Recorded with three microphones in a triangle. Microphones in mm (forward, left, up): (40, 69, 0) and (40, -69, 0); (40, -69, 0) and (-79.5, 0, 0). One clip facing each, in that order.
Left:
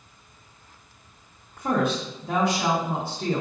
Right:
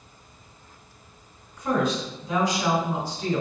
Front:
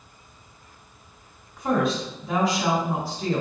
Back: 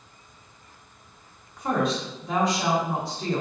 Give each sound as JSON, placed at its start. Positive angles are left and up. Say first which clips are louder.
{"t": 1.6, "sound": "a woman speaking", "louder": "even, front 2 dB", "azimuth_deg": 55, "distance_m": 1.7}